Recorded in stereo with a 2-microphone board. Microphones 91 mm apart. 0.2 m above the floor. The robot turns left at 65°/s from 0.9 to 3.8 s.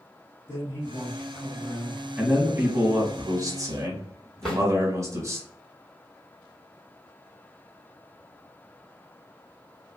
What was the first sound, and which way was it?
A man speaking, 145° left.